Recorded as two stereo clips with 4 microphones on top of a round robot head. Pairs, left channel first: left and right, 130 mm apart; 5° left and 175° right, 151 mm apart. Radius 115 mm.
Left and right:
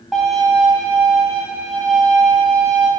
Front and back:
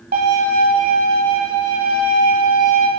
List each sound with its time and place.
0.1 s a violin: straight behind, 1.8 m